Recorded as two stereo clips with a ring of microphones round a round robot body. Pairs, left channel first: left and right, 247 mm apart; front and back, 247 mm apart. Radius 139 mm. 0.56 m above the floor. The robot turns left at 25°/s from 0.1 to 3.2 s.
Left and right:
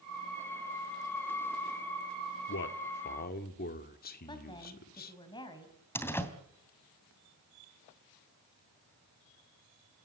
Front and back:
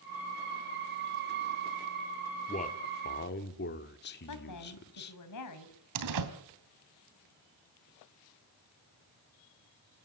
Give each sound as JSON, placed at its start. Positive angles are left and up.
{"t": 2.5, "sound": "a man speaking", "azimuth_deg": 60, "distance_m": 1.8}
{"t": 4.3, "sound": "a woman speaking", "azimuth_deg": 15, "distance_m": 4.0}
{"t": 6.0, "sound": "a door slam", "azimuth_deg": 170, "distance_m": 3.0}